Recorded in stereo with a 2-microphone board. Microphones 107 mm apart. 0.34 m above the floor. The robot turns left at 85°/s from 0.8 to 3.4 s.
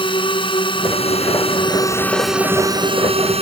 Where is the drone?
125° left; by 3.4 s 100° right.